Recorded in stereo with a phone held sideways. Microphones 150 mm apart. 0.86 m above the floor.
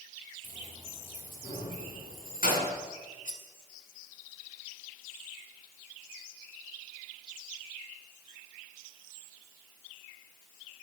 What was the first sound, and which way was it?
Keys jangling, 55° left (ahead or behind).